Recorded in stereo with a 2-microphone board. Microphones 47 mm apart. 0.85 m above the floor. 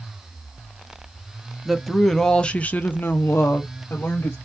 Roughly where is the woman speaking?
Centre.